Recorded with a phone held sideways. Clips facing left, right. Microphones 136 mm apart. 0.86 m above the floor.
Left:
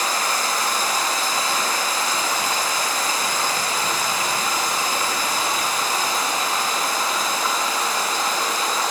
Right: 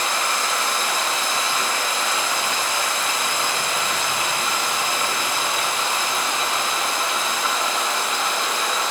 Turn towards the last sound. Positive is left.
turn(degrees=40)  # may be behind; listen again after turning